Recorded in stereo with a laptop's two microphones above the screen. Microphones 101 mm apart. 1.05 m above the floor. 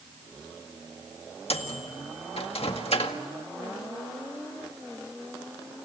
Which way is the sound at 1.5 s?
75° left (ahead or behind).